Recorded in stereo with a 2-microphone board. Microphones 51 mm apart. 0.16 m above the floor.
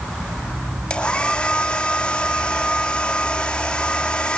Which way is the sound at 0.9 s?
20° left (ahead or behind).